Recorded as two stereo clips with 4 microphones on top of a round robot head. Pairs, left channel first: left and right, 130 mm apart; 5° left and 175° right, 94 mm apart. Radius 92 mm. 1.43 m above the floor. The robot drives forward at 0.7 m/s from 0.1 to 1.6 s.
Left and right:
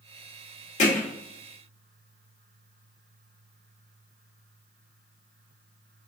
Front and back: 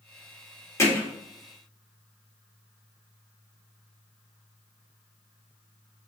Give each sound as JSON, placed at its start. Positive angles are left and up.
{"t": 0.8, "sound": "hammering", "azimuth_deg": 60, "distance_m": 1.7}